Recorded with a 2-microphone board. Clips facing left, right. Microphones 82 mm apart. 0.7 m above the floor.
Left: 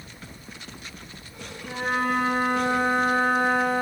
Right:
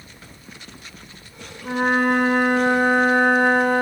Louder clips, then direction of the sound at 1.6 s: Right 7 dB; 65° right (ahead or behind).